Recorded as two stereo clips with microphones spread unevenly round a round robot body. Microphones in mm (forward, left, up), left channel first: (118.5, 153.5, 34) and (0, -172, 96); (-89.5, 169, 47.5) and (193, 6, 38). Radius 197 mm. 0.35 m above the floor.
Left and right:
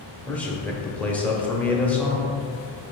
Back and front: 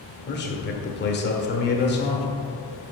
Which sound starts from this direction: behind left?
A man speaking, at 0.3 s.